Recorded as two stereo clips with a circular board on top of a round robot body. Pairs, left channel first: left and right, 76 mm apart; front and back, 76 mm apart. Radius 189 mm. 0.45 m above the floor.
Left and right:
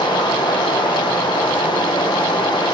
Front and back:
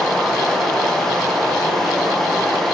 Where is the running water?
85° left, 3 m.